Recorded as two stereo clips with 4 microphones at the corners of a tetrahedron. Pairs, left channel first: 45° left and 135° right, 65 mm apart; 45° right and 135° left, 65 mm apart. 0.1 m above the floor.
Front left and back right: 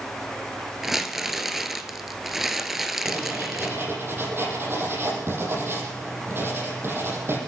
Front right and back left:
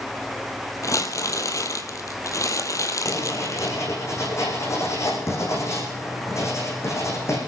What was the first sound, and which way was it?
Crumpling, 50° right.